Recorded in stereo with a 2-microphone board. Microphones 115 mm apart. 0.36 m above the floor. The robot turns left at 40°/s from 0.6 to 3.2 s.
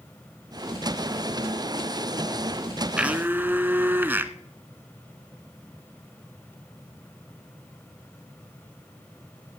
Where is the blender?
10° right (ahead or behind), 0.7 m; by 4.3 s 20° right (ahead or behind), 0.7 m.